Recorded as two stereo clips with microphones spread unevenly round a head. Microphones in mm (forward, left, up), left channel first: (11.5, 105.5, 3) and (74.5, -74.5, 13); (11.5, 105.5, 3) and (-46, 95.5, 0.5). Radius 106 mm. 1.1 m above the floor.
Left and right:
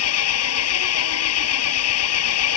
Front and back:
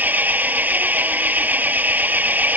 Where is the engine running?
130° left.